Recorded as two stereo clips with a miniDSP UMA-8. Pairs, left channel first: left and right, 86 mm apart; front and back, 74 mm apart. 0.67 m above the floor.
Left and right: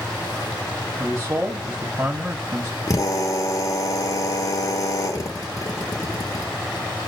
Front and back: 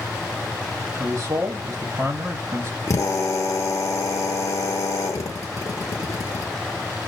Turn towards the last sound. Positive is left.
turn(degrees=45)